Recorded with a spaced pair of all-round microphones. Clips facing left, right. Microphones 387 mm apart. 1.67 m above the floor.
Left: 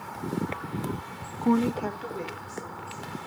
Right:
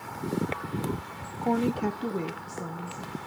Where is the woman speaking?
30° left (ahead or behind), 0.5 m; by 3.1 s 75° right (ahead or behind), 2 m.